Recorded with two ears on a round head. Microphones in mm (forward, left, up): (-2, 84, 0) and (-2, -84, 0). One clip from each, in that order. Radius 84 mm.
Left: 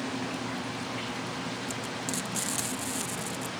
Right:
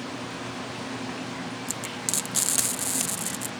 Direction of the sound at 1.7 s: 30° right (ahead or behind).